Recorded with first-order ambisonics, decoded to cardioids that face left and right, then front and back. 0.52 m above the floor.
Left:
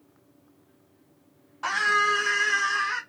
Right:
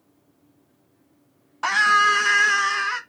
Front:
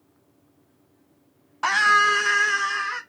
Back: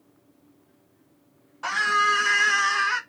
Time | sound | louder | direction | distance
1.6 | a scream | right 6 dB, front 4 dB | 40° right | 0.8 m